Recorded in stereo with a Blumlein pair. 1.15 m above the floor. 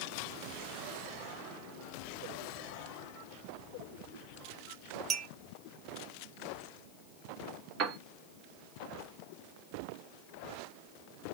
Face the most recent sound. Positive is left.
turn(degrees=-40)